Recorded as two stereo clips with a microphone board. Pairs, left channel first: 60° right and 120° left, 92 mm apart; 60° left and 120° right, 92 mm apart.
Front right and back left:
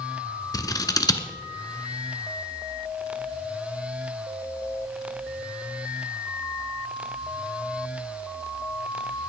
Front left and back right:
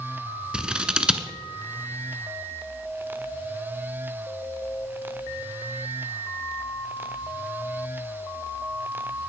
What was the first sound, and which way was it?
Scissors, 45° right.